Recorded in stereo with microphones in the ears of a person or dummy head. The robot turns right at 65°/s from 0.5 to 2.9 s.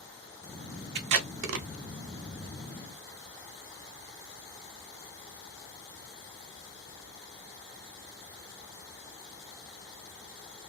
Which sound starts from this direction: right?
Tape being pulled, at 0.9 s.